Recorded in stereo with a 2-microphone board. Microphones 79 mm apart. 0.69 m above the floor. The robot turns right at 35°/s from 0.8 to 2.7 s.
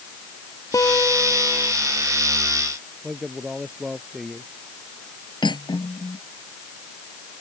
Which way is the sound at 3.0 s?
5° right (ahead or behind).